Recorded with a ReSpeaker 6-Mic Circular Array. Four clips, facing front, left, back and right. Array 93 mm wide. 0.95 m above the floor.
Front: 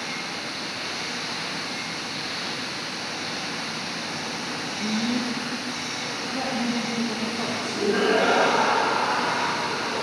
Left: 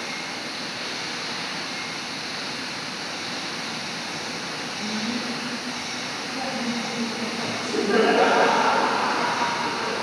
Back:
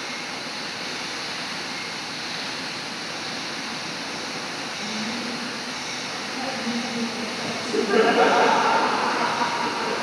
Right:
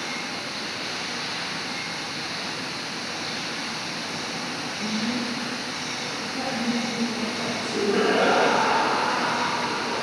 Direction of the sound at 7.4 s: 145° left.